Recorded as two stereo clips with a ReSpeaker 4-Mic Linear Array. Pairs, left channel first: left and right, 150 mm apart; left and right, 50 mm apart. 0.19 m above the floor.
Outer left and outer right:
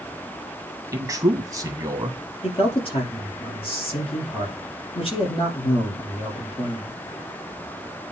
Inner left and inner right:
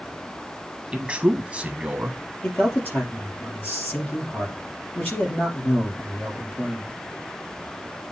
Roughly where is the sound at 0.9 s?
Right.